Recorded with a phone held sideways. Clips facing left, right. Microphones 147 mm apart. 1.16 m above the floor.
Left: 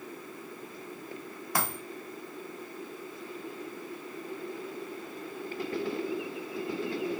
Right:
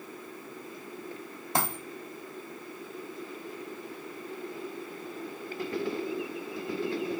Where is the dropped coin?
25° right (ahead or behind), 1.0 m.